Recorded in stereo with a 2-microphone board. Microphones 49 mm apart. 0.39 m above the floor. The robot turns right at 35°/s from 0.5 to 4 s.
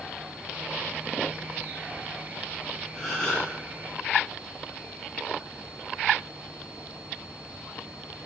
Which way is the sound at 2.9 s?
15° left (ahead or behind).